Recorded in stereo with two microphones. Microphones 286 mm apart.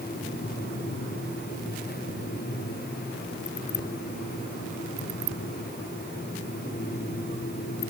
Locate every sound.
Only background noise.